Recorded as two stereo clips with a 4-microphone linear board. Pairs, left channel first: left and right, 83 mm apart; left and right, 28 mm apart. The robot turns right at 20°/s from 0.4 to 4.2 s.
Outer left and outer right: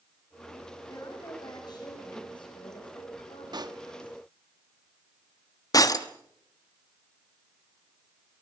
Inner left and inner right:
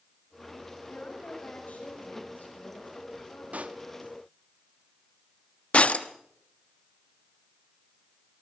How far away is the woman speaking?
About 6.5 m.